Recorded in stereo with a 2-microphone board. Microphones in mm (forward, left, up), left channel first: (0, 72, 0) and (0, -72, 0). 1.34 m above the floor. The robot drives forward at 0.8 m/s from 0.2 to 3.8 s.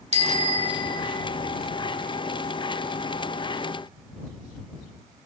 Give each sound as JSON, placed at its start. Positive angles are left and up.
{"t": 0.1, "sound": "a bicycle bell", "side_deg": -50, "distance_m": 2.5}